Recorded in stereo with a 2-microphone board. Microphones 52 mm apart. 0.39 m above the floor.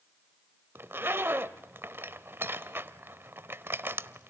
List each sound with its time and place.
0.8 s a zipper: 45° right (ahead or behind), 0.8 m